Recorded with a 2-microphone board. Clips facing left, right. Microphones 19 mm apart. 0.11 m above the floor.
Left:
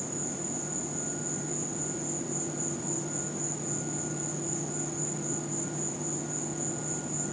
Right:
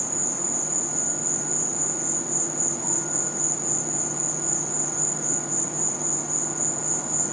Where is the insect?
45° right (ahead or behind).